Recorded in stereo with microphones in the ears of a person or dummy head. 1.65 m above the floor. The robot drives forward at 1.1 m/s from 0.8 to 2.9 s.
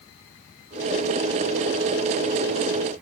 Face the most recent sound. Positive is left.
No sound to turn to.